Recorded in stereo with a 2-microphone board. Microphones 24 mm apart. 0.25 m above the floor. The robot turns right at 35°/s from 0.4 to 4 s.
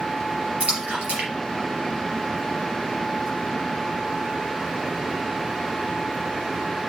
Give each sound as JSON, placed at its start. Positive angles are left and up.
{"t": 0.6, "sound": "a splash", "side_deg": -60, "distance_m": 4.0}